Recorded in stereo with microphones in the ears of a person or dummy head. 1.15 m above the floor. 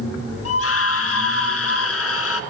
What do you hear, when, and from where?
0.5 s a scream: 75° left (ahead or behind), 2 m